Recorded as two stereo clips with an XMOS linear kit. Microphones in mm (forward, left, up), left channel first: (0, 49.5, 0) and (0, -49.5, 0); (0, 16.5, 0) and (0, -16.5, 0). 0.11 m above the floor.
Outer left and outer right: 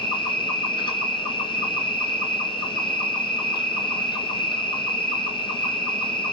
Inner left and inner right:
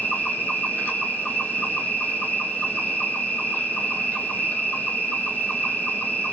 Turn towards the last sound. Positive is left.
turn(degrees=55)  # may be behind; listen again after turning